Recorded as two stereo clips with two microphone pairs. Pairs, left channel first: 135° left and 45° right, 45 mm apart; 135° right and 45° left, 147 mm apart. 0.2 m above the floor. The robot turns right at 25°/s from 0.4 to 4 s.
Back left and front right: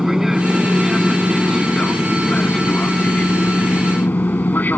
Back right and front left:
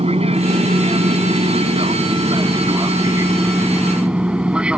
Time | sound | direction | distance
0.0 | an aircraft | 30° left | ?